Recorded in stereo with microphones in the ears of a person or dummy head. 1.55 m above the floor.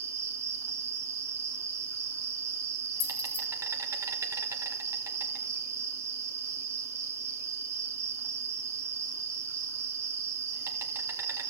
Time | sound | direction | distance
0.0 | an insect | 15° right (ahead or behind) | 1.8 m
3.0 | keys jangling | 60° left (ahead or behind) | 4.5 m